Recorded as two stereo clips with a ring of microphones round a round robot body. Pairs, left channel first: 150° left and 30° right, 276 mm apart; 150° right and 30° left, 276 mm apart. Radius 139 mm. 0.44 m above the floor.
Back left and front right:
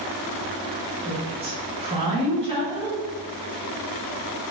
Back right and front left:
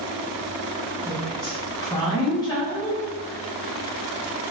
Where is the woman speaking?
85° right, 0.8 m.